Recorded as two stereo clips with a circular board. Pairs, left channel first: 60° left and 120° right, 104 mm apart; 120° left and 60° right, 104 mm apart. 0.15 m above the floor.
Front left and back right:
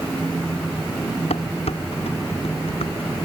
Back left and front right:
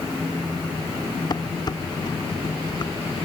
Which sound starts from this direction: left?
Dishes clattering, at 1.3 s.